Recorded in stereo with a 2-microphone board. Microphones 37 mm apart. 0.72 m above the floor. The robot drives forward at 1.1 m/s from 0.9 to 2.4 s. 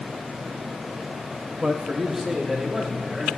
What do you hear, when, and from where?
1.6 s a man speaking: 15° right (ahead or behind), 0.7 m; by 3.3 s 10° right (ahead or behind), 1.3 m